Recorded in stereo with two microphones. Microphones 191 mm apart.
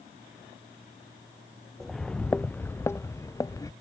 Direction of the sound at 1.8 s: Centre (ahead or behind).